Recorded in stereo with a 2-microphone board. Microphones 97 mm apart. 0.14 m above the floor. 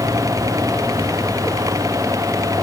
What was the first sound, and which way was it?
Only background noise.